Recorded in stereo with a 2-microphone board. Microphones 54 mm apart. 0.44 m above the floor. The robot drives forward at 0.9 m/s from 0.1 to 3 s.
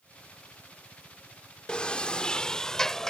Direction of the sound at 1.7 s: 20° left (ahead or behind).